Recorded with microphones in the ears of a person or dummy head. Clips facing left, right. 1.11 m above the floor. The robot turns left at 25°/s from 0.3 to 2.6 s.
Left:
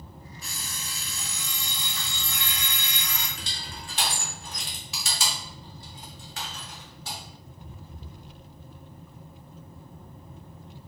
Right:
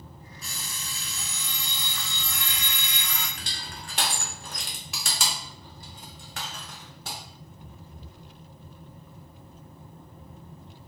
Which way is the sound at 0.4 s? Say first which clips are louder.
Right 1 dB; 100° right.